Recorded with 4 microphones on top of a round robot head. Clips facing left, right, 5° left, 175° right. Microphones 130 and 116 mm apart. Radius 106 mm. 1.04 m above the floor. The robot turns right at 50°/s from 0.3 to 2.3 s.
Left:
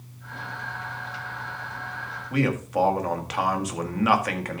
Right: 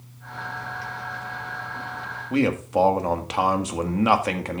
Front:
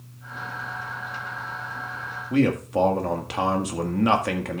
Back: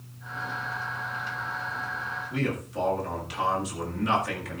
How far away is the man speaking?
About 1.8 m.